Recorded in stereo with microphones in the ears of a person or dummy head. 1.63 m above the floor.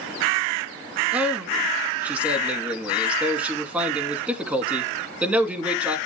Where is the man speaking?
5° right (ahead or behind), 2.5 m.